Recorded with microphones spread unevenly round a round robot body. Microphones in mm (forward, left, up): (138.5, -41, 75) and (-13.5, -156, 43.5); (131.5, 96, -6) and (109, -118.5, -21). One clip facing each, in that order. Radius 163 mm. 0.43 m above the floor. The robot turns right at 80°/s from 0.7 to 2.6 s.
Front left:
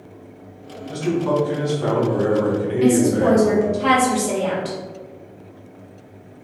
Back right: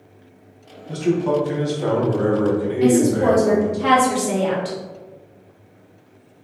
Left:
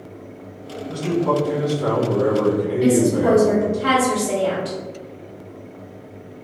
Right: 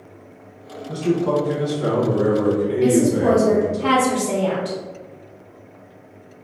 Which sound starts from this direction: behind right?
A man speaking, at 0.9 s.